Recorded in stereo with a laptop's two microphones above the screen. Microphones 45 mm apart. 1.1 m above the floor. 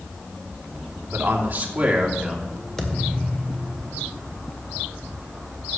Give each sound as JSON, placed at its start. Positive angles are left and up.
{"t": 1.1, "sound": "a man speaking", "side_deg": -50, "distance_m": 2.5}
{"t": 2.8, "sound": "a thud", "side_deg": 10, "distance_m": 1.9}